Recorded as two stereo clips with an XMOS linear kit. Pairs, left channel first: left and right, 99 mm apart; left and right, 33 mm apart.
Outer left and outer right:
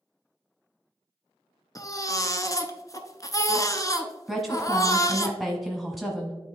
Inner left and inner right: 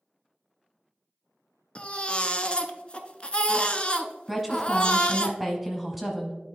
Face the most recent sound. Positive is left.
turn(degrees=0)  # may be behind; listen again after turning